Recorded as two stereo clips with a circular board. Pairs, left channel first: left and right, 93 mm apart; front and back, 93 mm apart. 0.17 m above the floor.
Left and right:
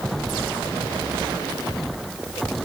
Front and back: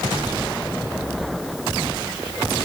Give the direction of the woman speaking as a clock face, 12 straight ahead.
No woman speaking in this recording.